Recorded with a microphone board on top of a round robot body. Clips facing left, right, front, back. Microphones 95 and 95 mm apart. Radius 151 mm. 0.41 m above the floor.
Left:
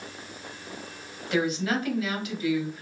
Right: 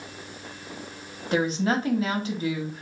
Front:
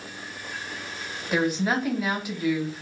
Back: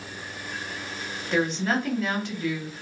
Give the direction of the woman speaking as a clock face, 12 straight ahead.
2 o'clock.